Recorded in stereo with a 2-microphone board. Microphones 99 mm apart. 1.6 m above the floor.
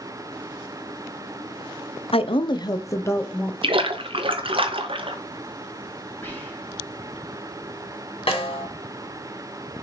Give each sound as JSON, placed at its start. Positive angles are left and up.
{"t": 2.1, "sound": "a woman speaking", "side_deg": 70, "distance_m": 0.6}
{"t": 3.6, "sound": "a splash", "side_deg": -60, "distance_m": 0.9}
{"t": 6.2, "sound": "whispering", "side_deg": 20, "distance_m": 1.7}
{"t": 8.3, "sound": "a snare drum", "side_deg": 70, "distance_m": 2.5}